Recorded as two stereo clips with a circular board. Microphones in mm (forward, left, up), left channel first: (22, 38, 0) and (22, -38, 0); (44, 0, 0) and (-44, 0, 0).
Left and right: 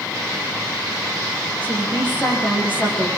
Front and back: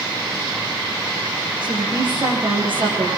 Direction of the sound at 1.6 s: 160° left.